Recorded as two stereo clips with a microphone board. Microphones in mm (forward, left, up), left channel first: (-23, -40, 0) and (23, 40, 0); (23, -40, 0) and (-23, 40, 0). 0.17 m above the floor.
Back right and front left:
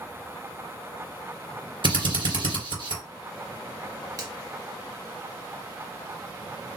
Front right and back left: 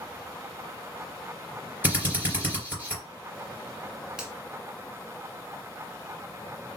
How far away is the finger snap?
About 1.4 m.